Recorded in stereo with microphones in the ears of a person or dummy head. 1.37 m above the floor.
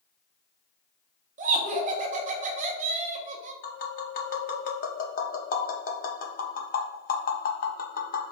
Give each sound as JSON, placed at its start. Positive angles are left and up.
{"t": 1.4, "sound": "laughter", "side_deg": -35, "distance_m": 0.7}
{"t": 3.6, "sound": "tapping", "side_deg": 35, "distance_m": 0.5}